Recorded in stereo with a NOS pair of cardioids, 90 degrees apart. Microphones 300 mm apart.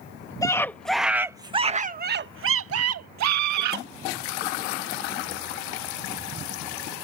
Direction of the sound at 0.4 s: 10° left.